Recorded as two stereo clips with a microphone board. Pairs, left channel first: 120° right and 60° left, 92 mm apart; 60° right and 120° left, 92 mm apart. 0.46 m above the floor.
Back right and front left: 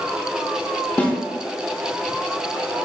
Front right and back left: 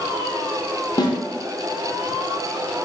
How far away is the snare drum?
About 0.6 m.